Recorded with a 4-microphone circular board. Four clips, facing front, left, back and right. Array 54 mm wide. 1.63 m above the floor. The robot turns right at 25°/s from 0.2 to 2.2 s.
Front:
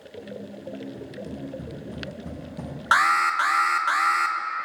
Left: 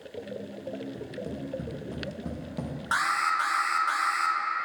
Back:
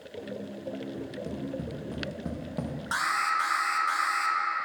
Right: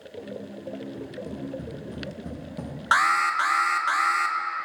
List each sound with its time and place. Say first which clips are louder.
0.9 s tapping: right 1 dB, even; 125° left, 1.8 m; by 2.8 s 160° left, 1.8 m
2.9 s an alarm: right 5 dB, front 8 dB; 40° right, 0.7 m